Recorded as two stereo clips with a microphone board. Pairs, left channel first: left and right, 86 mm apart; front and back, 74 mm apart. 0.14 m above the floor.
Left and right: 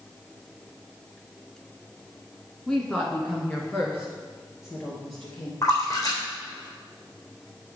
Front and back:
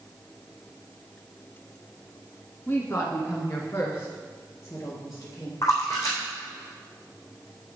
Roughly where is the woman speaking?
Ahead.